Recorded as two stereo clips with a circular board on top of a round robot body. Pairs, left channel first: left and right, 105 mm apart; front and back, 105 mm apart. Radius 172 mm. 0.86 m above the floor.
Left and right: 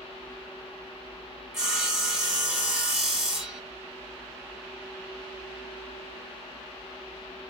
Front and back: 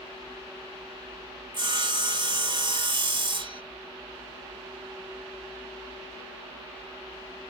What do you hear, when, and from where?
1.5 s sawing: 175° right, 1.3 m